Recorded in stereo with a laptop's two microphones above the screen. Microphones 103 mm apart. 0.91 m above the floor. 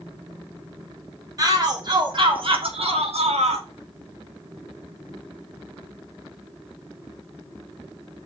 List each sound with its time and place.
1.4 s a shout: 40° right (ahead or behind), 1.9 m; by 3.7 s 80° right, 1.4 m